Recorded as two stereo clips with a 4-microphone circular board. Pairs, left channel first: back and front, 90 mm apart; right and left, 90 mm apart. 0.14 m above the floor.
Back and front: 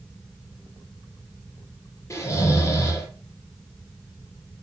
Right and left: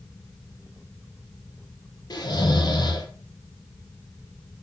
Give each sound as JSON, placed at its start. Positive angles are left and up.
{"t": 2.1, "sound": "snoring", "azimuth_deg": -125, "distance_m": 4.0}